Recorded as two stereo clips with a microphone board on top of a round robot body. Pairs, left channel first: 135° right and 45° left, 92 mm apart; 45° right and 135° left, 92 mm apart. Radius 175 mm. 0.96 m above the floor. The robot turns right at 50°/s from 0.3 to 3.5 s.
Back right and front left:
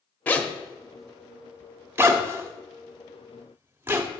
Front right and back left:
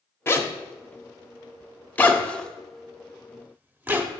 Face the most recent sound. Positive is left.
turn(degrees=80)